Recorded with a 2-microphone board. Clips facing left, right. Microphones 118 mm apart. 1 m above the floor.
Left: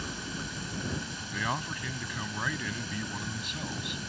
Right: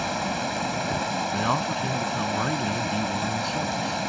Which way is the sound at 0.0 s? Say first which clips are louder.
Right 12 dB; 75° right (ahead or behind).